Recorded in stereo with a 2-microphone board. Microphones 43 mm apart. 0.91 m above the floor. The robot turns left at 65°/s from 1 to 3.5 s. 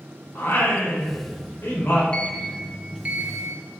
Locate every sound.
0.3 s singing: 105° left, 4 m; by 2.0 s 40° left, 4 m
2.1 s a sliding door: 25° left, 1.4 m; by 3.6 s 65° right, 1.4 m